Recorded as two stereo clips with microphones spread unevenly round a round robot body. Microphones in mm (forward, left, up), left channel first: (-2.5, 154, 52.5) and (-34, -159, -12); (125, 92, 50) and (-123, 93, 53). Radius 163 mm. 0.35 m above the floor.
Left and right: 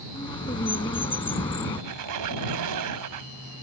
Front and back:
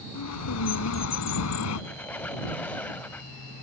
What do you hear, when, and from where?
0.1 s a bird: 5° left
1.8 s a squeak: 85° right